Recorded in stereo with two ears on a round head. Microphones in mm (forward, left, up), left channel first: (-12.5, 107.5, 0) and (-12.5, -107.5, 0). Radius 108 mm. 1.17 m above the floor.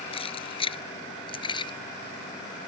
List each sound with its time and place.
0.1 s keys jangling: 25° left (ahead or behind); by 1.7 s 20° left (ahead or behind)